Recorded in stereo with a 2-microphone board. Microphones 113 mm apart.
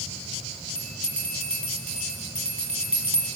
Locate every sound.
0.8 s a bell: 70° right (ahead or behind), 1.4 m